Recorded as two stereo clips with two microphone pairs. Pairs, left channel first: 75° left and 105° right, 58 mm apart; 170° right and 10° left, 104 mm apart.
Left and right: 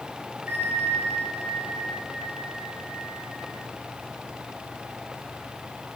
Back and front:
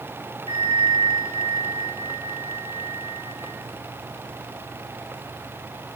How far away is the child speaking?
No child speaking in this recording.